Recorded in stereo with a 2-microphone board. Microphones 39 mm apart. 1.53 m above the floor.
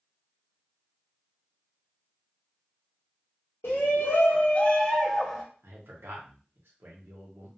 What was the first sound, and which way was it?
A shout, 85° left.